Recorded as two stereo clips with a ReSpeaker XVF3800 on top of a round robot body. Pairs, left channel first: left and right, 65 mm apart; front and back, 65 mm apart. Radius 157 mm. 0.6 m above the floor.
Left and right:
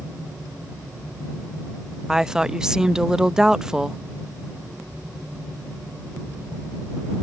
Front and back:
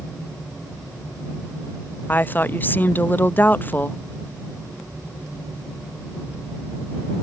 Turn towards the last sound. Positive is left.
turn(degrees=-20)